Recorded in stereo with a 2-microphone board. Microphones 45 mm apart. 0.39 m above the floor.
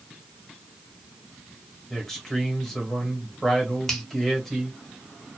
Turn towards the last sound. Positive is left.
turn(degrees=10)  # may be behind; listen again after turning